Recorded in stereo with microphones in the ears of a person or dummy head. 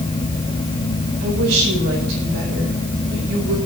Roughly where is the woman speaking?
Right.